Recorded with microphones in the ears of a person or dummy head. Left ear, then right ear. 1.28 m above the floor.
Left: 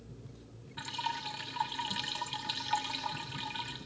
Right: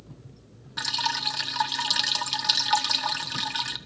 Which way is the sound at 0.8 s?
45° right (ahead or behind).